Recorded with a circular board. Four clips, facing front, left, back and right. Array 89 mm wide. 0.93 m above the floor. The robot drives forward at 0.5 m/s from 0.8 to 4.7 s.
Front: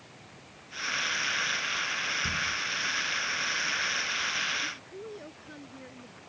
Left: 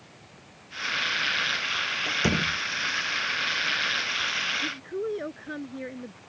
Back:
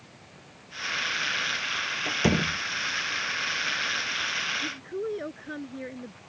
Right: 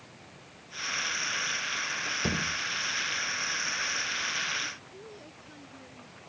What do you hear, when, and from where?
2.0 s a door slam: 155° left
4.6 s a woman speaking: 125° left